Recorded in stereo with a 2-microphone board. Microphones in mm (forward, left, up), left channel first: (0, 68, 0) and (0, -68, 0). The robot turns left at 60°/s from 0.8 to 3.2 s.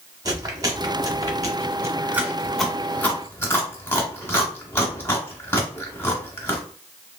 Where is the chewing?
30° right (ahead or behind), 1.0 m; by 6.6 s 15° left (ahead or behind), 1.0 m.